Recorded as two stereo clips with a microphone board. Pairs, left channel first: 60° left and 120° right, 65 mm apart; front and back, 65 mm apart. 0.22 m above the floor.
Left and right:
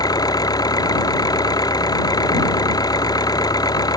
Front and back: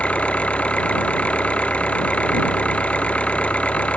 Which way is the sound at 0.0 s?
70° left.